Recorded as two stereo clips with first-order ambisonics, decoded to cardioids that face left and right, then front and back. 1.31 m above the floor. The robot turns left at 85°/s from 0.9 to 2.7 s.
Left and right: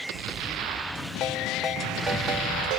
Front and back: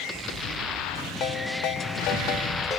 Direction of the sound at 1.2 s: 40° left.